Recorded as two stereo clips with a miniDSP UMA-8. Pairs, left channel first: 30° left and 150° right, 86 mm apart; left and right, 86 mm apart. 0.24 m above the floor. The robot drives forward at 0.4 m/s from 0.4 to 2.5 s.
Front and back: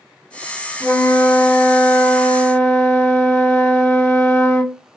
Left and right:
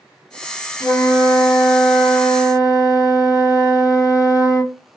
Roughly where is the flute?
Ahead left.